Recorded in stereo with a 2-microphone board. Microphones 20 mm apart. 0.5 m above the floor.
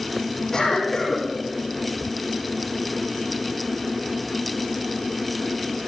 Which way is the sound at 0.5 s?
35° left (ahead or behind).